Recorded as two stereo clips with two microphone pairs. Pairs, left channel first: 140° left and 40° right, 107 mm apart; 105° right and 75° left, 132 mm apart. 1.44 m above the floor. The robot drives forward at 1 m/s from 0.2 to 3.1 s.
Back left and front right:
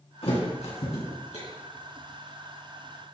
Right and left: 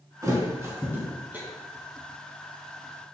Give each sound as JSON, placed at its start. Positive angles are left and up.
{"t": 0.2, "sound": "a thud", "azimuth_deg": 135, "distance_m": 3.0}